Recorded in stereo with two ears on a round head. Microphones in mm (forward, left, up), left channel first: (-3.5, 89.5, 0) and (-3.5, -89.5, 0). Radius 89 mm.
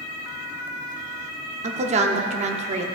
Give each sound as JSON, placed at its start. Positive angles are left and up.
{"t": 1.6, "sound": "a woman speaking", "side_deg": -35, "distance_m": 0.8}